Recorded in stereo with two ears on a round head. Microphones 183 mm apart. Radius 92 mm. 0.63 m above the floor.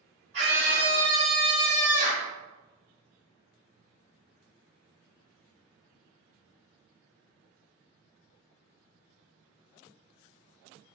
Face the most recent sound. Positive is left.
turn(degrees=35)  # may be behind; listen again after turning